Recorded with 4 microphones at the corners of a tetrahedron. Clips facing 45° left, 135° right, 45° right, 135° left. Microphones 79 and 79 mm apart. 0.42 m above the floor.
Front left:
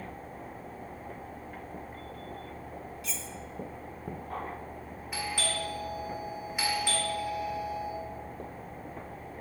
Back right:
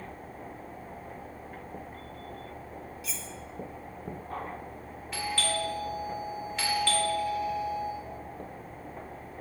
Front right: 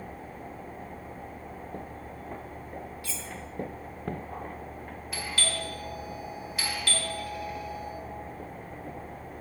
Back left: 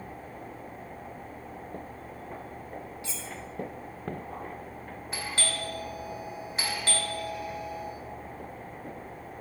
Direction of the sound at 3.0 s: 140° left.